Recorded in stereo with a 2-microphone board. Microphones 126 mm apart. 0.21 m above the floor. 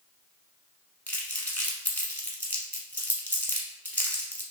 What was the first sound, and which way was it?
Crumpling, 15° left (ahead or behind).